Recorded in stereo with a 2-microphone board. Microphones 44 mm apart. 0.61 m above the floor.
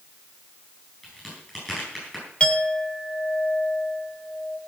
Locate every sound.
1.0 s a crack: 10° left (ahead or behind), 9.5 m
2.4 s a clink: 30° left (ahead or behind), 1.7 m